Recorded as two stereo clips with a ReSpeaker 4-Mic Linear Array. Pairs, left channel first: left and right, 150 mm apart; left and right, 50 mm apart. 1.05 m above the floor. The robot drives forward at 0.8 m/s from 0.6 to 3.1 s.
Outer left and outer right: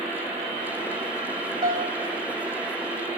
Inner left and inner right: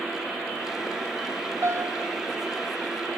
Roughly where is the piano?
Right.